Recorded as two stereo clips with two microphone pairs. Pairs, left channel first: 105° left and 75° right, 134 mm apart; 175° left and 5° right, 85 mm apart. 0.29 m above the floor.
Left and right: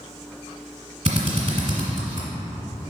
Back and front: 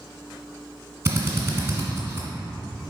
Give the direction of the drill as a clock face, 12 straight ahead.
2 o'clock.